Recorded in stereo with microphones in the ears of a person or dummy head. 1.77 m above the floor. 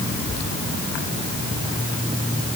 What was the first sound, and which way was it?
Only background noise.